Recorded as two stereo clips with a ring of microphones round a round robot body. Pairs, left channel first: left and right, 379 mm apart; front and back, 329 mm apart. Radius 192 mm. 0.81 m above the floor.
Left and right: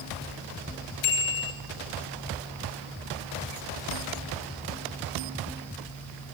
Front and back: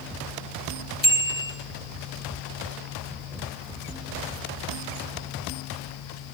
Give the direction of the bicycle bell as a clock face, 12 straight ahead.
10 o'clock.